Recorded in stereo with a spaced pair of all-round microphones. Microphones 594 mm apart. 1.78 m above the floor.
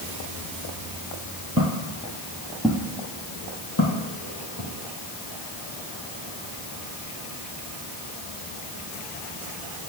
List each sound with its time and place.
1.6 s footsteps: 25° right (ahead or behind), 1.9 m; by 4.7 s 30° left (ahead or behind), 3 m